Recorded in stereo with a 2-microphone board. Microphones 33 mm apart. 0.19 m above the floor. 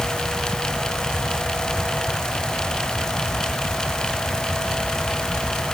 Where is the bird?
No bird in this recording.